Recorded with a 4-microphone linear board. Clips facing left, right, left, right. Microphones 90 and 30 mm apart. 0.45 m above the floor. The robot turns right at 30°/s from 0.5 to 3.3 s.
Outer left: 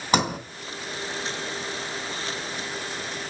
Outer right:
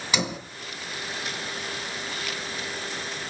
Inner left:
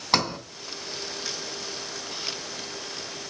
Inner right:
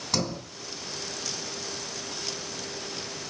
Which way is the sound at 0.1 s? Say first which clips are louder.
Outer left 6 dB, inner left 5 dB; 45° left (ahead or behind).